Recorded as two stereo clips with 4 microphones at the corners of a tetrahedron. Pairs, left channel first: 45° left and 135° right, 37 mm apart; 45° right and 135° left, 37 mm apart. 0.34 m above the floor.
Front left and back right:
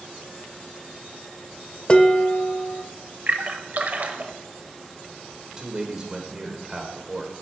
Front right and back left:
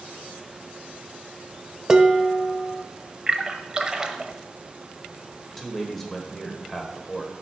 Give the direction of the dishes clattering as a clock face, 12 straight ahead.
9 o'clock.